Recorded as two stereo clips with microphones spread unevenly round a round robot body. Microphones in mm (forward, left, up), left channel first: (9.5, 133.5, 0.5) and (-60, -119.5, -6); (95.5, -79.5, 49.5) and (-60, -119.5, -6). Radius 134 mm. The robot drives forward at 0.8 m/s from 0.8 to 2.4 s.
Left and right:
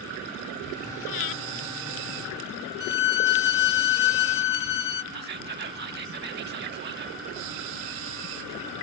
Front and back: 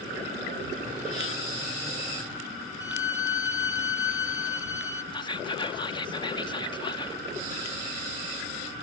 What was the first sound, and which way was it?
Breathing, 80° left.